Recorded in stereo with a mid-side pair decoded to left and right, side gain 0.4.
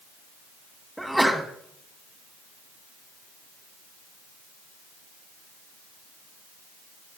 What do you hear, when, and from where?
1.0 s a sneeze: straight ahead, 2.0 m